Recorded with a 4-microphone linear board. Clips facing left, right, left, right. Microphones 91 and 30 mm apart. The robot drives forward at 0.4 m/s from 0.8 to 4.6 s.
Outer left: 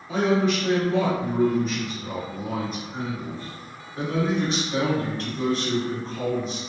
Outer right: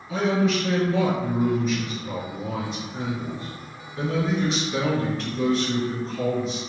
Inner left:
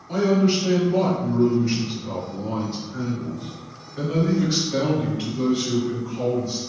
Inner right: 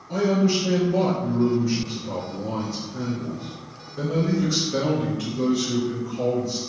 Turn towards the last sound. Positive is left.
turn(degrees=35)  # may be behind; listen again after turning